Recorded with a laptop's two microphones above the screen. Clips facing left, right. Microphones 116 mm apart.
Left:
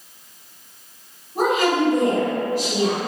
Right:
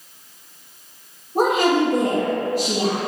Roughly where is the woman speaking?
Right.